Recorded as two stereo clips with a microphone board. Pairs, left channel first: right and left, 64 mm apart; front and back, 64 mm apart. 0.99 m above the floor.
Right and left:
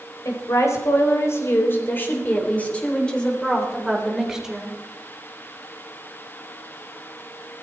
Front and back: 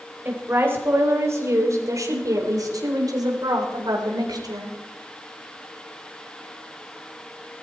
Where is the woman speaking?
120° right, 4.5 m; by 4.8 s 170° left, 4.5 m.